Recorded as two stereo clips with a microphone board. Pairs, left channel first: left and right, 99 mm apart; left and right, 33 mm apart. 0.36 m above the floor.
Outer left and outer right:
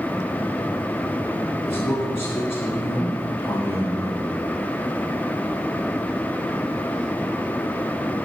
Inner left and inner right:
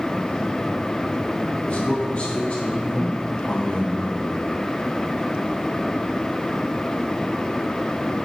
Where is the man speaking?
25° left (ahead or behind), 1.9 m.